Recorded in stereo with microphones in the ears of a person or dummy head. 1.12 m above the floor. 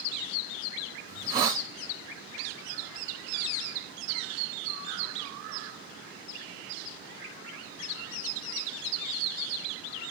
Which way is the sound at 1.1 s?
20° right (ahead or behind).